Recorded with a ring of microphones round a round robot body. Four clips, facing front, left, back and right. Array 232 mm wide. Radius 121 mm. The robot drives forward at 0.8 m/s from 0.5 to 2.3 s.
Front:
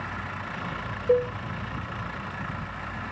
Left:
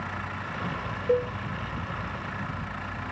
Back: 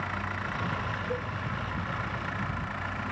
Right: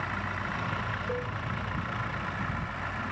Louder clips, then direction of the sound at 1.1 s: Left 13 dB, front 17 dB; 30° left.